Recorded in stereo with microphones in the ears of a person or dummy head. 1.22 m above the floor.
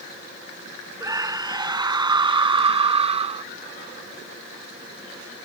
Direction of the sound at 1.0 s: 15° right (ahead or behind).